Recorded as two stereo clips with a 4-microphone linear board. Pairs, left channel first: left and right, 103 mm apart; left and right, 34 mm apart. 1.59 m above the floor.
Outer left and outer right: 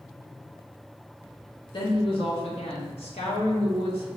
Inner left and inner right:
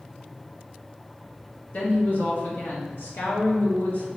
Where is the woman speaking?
50° left (ahead or behind), 1.5 m; by 4.1 s 65° left (ahead or behind), 1.8 m.